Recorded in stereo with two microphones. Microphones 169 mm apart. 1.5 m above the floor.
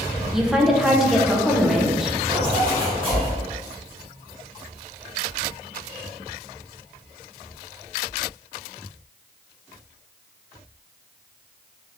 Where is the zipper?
30° right (ahead or behind), 1.8 m.